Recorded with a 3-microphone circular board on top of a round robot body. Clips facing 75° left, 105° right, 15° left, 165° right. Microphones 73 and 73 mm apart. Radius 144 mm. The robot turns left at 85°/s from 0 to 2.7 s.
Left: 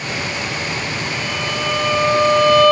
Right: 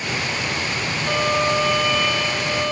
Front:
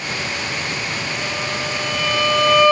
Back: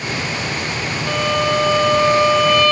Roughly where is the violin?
Behind right.